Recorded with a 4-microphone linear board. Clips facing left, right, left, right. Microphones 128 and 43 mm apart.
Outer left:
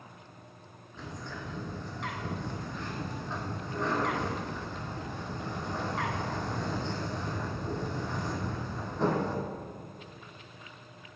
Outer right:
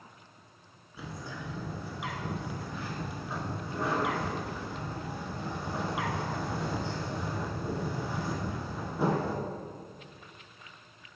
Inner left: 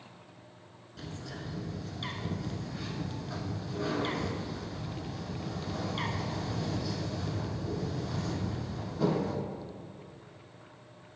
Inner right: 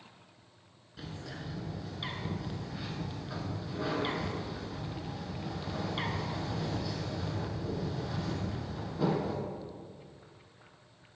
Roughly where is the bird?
Centre.